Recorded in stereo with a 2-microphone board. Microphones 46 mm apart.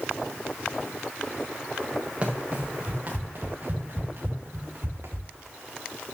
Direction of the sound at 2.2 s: 30° right (ahead or behind).